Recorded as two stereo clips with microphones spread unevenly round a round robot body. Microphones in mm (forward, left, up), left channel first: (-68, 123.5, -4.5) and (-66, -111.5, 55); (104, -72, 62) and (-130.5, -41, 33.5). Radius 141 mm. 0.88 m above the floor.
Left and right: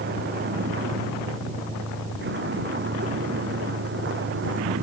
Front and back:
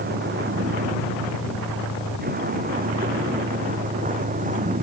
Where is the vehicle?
135° right; by 4.8 s 130° right.